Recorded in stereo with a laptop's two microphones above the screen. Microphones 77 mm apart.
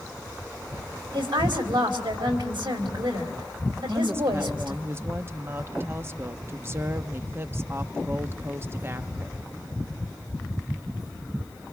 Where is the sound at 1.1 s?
85° right, 4.5 m.